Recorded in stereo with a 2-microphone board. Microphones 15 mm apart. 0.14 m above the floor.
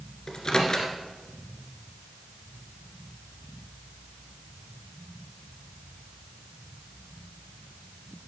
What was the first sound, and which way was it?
A microwave, 45° left (ahead or behind).